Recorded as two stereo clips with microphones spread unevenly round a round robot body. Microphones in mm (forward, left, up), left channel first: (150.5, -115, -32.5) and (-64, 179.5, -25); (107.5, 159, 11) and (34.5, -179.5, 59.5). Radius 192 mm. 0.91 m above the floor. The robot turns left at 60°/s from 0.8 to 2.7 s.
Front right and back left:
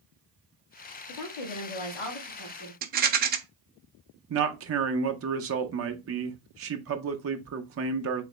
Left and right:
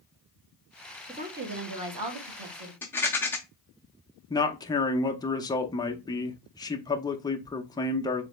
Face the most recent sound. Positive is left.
turn(degrees=135)